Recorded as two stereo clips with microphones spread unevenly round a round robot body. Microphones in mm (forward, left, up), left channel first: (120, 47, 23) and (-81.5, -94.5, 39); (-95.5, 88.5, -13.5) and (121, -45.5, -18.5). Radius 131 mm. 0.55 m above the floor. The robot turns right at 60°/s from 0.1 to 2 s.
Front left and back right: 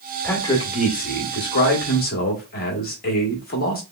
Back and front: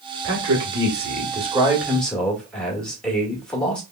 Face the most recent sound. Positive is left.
turn(degrees=60)